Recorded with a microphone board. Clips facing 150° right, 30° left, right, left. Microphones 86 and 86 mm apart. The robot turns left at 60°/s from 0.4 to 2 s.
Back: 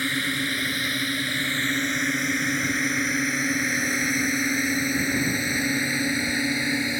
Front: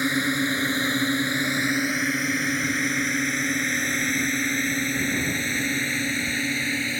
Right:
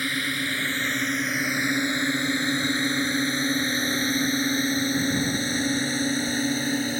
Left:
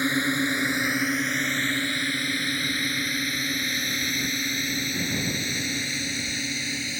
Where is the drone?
65° left; by 7.0 s 80° right.